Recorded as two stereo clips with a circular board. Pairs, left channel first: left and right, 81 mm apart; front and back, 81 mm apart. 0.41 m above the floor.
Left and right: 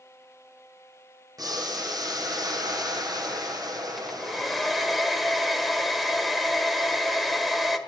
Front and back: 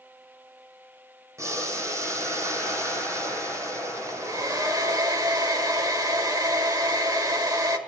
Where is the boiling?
130° right, 3 m.